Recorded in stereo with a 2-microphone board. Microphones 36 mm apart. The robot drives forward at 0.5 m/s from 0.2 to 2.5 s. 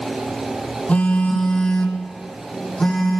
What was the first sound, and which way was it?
A phone buzzing, 40° left (ahead or behind).